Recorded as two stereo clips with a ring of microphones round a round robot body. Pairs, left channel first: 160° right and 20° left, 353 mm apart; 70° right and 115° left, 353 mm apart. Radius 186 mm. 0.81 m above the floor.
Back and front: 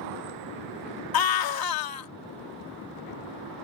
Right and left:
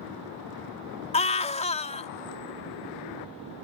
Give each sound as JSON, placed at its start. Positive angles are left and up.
{"t": 1.1, "sound": "a scream", "azimuth_deg": -140}